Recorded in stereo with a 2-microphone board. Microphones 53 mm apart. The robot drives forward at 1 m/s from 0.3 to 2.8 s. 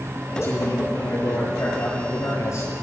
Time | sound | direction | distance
0.3 | a man speaking | 45° left (ahead or behind) | 9 m